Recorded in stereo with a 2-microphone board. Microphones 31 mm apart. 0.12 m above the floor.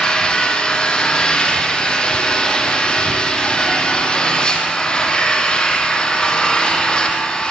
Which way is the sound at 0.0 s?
30° left (ahead or behind).